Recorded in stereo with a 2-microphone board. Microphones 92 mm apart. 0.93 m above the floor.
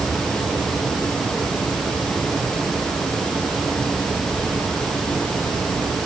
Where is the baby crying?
No baby crying in this recording.